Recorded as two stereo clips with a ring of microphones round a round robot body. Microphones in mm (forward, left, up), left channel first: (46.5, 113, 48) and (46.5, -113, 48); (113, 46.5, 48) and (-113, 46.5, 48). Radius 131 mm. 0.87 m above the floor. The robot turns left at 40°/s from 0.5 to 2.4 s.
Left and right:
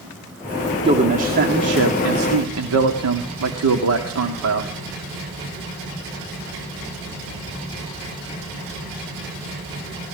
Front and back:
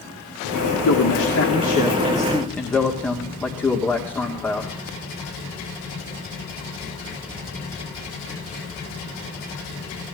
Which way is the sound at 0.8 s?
20° right.